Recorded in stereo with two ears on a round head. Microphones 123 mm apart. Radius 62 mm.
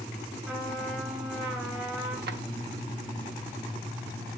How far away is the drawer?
About 0.9 m.